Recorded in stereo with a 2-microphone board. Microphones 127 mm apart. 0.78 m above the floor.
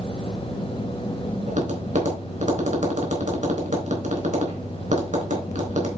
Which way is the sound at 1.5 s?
80° right.